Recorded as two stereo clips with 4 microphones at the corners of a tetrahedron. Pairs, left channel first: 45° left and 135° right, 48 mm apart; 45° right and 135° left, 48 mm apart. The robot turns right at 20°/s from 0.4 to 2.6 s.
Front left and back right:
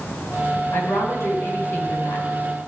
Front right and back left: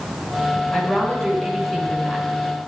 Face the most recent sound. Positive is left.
turn(degrees=55)